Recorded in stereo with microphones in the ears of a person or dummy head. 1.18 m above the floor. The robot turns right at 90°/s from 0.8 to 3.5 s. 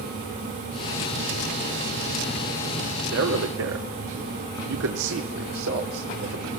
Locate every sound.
3.1 s a man speaking: 60° right (ahead or behind), 3 m; by 6.5 s 80° right, 3 m